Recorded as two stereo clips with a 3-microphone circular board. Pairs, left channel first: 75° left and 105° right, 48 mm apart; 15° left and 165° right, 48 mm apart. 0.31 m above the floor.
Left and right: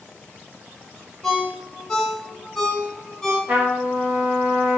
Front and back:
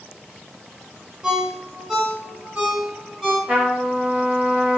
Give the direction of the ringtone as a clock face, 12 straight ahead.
8 o'clock.